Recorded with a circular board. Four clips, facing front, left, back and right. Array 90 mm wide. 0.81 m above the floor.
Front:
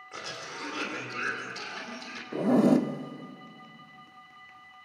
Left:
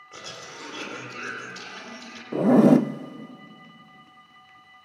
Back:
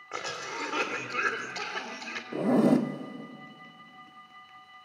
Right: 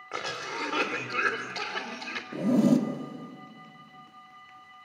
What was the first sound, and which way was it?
A cough, 125° right.